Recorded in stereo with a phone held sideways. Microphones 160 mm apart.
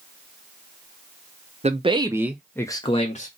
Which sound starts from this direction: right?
A man speaking, at 1.6 s.